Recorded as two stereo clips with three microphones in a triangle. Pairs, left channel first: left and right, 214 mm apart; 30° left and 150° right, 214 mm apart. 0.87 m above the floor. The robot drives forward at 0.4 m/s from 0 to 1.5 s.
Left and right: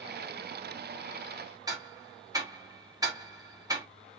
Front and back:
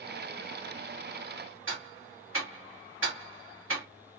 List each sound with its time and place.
1.7 s ticking: 165° right, 1.6 m